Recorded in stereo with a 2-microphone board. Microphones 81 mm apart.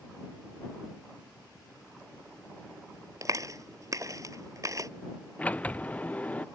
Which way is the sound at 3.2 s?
45° right (ahead or behind).